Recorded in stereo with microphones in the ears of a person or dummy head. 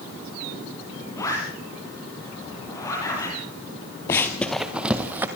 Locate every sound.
1.2 s a zipper: 15° left (ahead or behind), 9.5 m
4.1 s running footsteps: 10° left (ahead or behind), 1.2 m; by 5.3 s 15° right (ahead or behind), 1.8 m